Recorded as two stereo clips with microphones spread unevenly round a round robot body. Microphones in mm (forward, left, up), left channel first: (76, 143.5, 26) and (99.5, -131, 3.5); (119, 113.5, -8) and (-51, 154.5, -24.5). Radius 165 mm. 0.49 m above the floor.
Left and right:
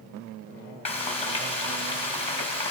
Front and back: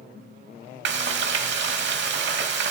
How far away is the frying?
About 0.6 m.